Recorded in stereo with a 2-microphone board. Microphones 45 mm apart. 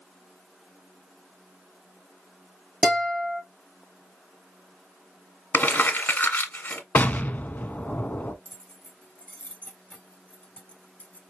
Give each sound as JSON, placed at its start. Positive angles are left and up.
{"t": 2.8, "sound": "a guitar", "side_deg": -5, "distance_m": 3.5}
{"t": 5.5, "sound": "crumpling", "side_deg": 45, "distance_m": 1.5}
{"t": 7.0, "sound": "an explosion", "side_deg": 40, "distance_m": 0.6}
{"t": 8.4, "sound": "keys jangling", "side_deg": 30, "distance_m": 0.9}